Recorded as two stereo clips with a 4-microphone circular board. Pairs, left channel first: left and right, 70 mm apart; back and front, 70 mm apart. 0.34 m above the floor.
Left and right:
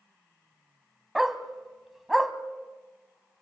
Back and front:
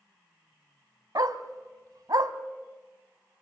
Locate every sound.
1.1 s a dog barking: 5° right, 1.0 m